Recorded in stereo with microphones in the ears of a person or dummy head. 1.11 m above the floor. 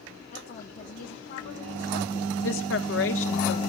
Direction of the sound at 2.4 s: 60° left (ahead or behind).